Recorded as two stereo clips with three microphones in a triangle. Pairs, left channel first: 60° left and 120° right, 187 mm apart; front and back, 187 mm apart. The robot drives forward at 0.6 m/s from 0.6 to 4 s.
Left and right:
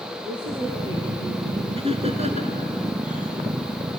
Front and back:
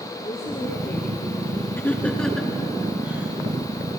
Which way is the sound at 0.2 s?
55° right.